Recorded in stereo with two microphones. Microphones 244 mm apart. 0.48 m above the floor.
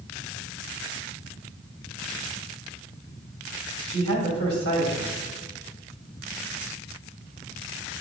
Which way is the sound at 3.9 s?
60° left (ahead or behind).